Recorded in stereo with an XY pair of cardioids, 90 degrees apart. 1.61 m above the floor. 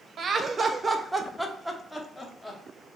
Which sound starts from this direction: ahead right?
Laughter, at 0.2 s.